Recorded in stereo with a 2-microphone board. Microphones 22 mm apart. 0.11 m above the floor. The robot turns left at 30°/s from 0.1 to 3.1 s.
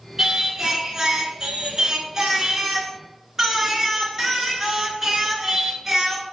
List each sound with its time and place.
0.2 s singing: 20° right (ahead or behind), 1.1 m